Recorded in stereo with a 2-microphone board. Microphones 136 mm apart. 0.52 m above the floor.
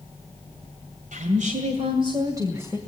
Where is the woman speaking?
70° right (ahead or behind), 2 m; by 2.8 s 15° right (ahead or behind), 2.5 m.